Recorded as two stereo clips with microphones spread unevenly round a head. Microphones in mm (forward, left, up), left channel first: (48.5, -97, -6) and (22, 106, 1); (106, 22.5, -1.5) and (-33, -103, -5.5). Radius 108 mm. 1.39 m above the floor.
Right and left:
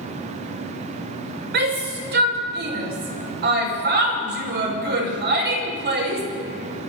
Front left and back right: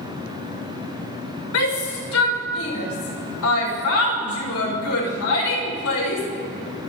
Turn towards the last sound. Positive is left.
turn(degrees=60)